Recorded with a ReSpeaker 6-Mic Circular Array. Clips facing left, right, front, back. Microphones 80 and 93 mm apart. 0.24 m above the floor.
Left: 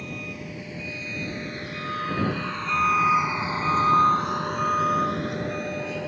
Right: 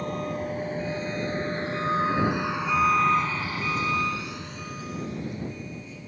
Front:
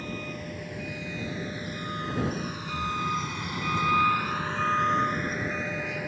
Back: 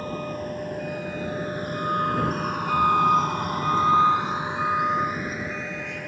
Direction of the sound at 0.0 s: 135° right.